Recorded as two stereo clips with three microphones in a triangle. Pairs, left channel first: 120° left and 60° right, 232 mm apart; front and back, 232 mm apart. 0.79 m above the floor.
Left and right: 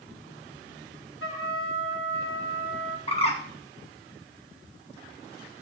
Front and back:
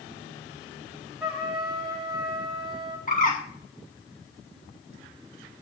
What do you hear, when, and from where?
1.2 s a trumpet: 90° left, 3 m
3.1 s a bird: 55° left, 2.0 m